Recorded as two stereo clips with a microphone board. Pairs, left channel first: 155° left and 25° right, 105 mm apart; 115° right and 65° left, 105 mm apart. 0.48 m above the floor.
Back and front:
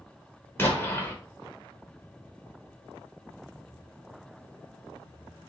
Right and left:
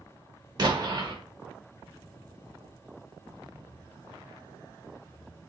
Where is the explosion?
95° left, 1.1 m.